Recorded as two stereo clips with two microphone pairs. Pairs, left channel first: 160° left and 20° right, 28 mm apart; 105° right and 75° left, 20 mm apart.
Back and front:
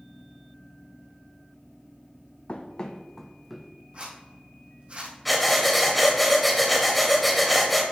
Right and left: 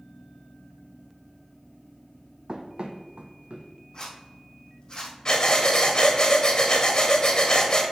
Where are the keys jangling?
No keys jangling in this recording.